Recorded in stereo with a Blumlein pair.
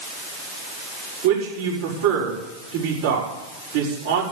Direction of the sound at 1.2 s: 55° right.